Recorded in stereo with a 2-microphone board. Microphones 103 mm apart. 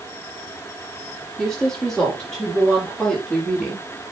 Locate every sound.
1.4 s a woman speaking: 5° left (ahead or behind), 7 m